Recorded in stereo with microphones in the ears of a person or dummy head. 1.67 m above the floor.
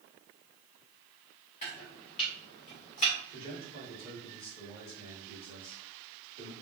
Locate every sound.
1.6 s chopping: 25° left (ahead or behind), 1.2 m
3.3 s a man speaking: 45° left (ahead or behind), 2.5 m